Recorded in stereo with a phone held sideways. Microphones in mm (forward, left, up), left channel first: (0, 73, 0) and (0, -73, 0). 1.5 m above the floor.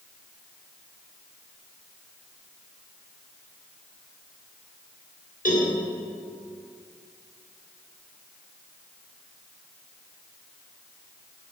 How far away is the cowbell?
About 4 m.